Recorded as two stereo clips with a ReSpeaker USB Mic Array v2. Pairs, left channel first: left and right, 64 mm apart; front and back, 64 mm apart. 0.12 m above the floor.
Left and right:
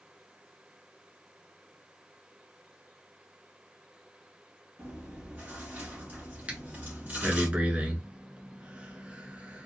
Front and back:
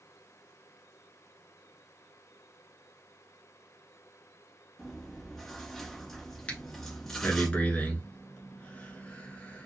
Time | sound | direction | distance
4.8 | chewing | 80° right | 1.6 m
6.5 | breathing | 45° right | 1.1 m